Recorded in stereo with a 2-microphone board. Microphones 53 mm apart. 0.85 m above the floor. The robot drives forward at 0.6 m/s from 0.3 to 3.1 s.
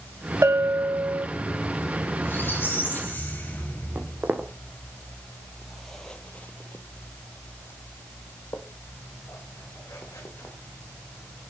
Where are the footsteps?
35° right (ahead or behind), 1.8 m; by 10.5 s 55° left (ahead or behind), 3 m.